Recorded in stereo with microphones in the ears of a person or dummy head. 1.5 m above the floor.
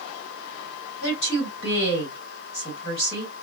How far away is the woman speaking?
About 1.9 m.